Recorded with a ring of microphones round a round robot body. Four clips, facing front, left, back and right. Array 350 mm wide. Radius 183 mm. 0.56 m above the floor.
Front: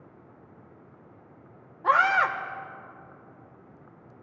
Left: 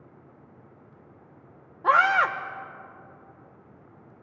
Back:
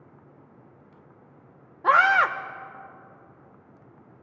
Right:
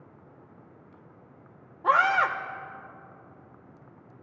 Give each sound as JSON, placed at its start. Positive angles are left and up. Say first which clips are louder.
{"t": 1.8, "sound": "a scream", "louder": "left 2 dB, back 3 dB", "azimuth_deg": 155, "distance_m": 0.8}